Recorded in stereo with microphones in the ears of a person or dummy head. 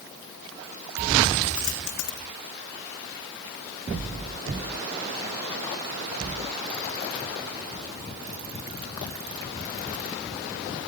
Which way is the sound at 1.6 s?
85° left.